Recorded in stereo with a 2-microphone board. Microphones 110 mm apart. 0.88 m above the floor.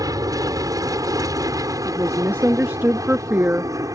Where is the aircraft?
35° right (ahead or behind); by 4.0 s 30° right (ahead or behind).